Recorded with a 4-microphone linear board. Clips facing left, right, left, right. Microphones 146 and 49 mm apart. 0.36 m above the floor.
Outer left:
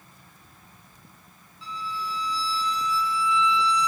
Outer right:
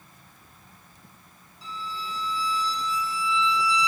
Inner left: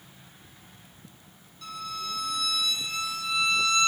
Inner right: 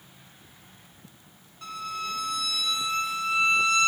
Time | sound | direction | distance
1.6 | a violin | 40° right (ahead or behind) | 0.8 m